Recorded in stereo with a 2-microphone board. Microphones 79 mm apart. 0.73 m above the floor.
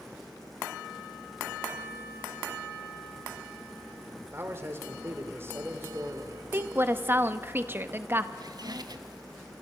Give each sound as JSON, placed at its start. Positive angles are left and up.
{"t": 4.3, "sound": "a man speaking", "side_deg": -30, "distance_m": 2.0}
{"t": 6.5, "sound": "a woman speaking", "side_deg": -30, "distance_m": 0.7}
{"t": 8.4, "sound": "a squeak", "side_deg": -60, "distance_m": 1.0}